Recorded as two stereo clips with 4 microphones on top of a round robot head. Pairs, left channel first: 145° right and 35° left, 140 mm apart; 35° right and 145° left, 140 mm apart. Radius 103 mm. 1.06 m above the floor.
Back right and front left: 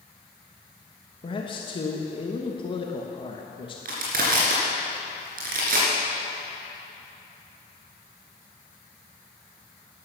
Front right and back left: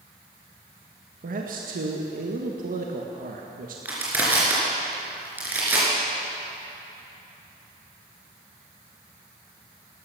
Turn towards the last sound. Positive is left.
turn(degrees=65)